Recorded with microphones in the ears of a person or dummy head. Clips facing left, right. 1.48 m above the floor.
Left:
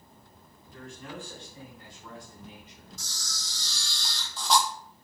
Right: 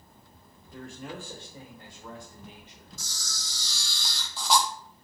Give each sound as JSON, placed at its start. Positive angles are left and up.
{"t": 0.7, "sound": "a man speaking", "side_deg": -35, "distance_m": 2.0}
{"t": 3.0, "sound": "a camera shutter", "side_deg": -15, "distance_m": 0.6}